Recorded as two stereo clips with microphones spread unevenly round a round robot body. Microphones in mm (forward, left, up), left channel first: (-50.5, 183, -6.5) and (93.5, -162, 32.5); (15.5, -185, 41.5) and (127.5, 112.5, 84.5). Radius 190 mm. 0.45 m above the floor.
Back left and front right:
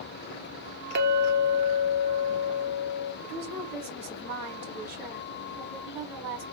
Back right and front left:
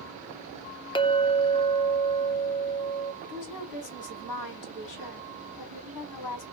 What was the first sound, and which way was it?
A clink, 95° right.